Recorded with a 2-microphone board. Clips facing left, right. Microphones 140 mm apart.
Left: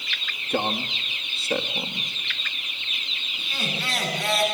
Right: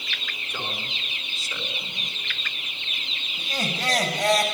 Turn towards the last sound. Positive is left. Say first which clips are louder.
# right 3 dB
turn(degrees=-45)  # may be behind; listen again after turning